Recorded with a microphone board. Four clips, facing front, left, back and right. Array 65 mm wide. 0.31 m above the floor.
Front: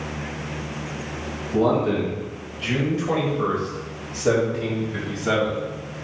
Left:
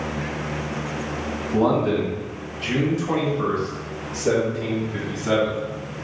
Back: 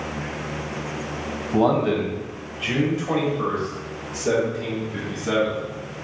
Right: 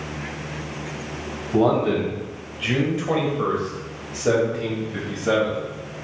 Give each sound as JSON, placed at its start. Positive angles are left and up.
{"t": 1.5, "sound": "a man speaking", "azimuth_deg": -145, "distance_m": 1.5}